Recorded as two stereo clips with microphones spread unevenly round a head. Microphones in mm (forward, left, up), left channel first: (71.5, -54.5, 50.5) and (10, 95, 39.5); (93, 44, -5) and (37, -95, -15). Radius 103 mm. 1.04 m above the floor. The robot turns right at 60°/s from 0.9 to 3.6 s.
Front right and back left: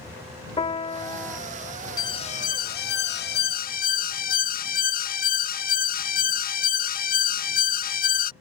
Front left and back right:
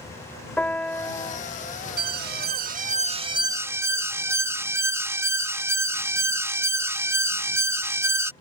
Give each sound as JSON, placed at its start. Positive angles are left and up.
{"t": 0.6, "sound": "a piano", "azimuth_deg": -10}
{"t": 2.0, "sound": "an alarm", "azimuth_deg": -140}